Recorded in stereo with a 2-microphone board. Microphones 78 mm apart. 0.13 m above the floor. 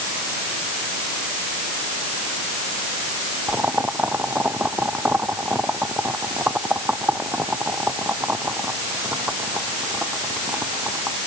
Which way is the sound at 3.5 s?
20° right (ahead or behind).